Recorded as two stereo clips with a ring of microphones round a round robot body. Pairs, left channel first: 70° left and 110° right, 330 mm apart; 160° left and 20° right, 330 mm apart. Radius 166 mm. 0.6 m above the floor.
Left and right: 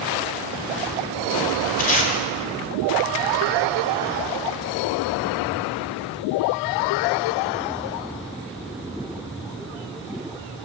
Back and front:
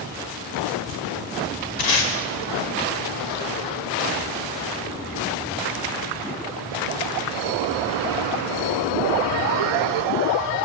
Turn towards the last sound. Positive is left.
turn(degrees=135)